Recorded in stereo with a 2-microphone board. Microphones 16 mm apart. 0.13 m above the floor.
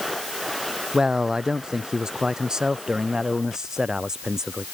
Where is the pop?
I don't hear a pop.